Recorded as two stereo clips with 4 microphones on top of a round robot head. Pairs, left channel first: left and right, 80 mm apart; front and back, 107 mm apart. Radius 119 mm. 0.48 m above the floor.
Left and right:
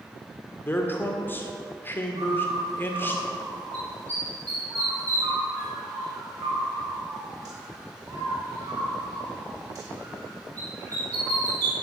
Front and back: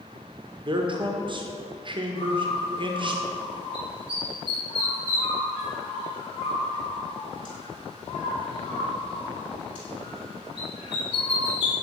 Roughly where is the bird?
Ahead right.